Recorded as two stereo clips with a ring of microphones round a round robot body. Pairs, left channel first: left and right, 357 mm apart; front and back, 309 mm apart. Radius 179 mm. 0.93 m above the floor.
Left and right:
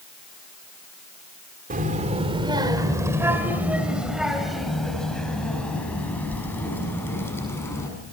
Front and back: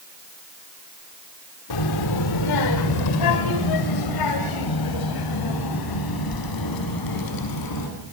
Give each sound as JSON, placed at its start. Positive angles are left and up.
{"t": 1.7, "sound": "a child speaking", "azimuth_deg": -20, "distance_m": 2.5}